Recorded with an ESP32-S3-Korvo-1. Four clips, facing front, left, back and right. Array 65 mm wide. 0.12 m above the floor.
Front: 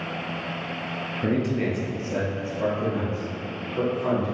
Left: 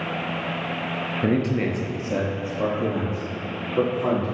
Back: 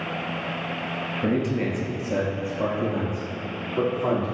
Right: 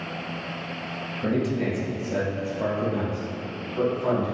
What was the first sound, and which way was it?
A man speaking, 90° left.